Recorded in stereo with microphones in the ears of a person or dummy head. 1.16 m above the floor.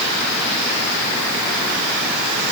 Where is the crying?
No crying in this recording.